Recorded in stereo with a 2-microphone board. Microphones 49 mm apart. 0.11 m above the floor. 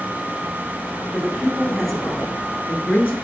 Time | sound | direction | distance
1.1 | a man speaking | 15° right (ahead or behind) | 1.2 m